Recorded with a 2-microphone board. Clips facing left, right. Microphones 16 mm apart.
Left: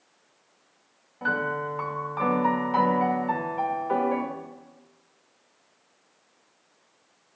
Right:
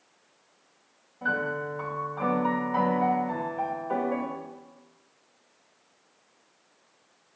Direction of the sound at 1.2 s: 85° left.